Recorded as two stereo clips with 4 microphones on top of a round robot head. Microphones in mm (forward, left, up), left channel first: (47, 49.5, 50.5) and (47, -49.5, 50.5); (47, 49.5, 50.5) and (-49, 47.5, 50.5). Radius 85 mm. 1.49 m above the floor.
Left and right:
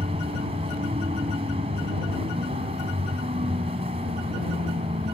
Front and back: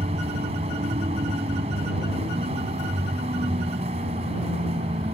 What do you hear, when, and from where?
0.0 s a vehicle: 135° right